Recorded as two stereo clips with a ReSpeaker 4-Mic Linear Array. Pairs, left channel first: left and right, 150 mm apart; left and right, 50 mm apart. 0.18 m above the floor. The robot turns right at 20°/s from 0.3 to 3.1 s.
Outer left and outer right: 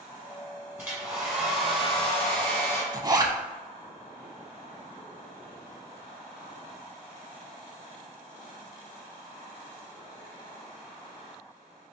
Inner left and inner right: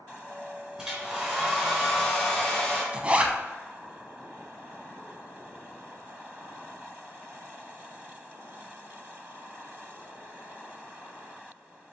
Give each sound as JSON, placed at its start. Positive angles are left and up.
{"t": 0.8, "sound": "a hair dryer", "azimuth_deg": -15, "distance_m": 1.8}
{"t": 2.9, "sound": "a zipper", "side_deg": -25, "distance_m": 0.5}